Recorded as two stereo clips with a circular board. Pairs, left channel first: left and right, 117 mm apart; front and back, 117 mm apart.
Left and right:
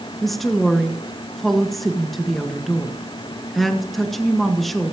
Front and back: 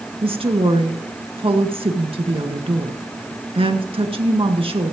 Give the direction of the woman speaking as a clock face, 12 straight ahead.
6 o'clock.